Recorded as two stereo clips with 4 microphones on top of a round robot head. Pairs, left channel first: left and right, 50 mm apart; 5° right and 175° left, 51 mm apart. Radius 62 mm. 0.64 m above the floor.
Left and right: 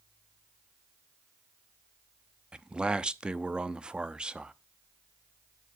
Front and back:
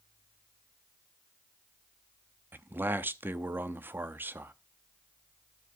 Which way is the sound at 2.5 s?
155° right.